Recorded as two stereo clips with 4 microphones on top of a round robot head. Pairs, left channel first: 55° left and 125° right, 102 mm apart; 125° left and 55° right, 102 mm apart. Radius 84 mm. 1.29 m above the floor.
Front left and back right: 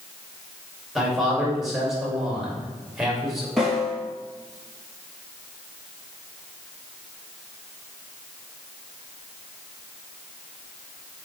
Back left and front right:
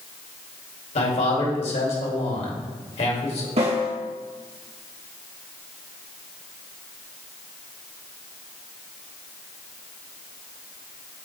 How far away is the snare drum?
About 2.5 m.